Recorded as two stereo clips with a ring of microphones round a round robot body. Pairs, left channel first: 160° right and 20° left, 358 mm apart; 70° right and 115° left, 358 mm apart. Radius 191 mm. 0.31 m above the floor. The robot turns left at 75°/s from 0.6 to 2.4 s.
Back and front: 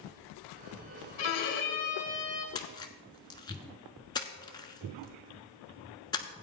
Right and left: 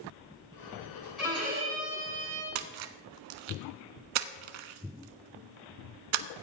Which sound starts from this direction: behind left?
A splash, at 2.5 s.